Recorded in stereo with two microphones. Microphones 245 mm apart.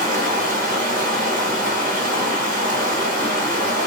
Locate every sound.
0.0 s running water: 35° right (ahead or behind), 1.5 m